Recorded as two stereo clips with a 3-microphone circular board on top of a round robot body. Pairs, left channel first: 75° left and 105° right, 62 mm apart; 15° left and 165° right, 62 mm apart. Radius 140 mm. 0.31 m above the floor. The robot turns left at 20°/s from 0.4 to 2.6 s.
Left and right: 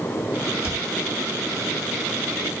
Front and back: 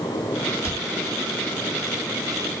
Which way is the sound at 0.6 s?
35° right.